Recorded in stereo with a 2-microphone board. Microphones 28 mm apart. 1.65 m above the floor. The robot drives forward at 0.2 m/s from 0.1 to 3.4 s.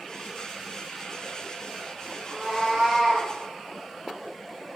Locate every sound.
2.2 s a cat meowing: 10° left (ahead or behind), 1.9 m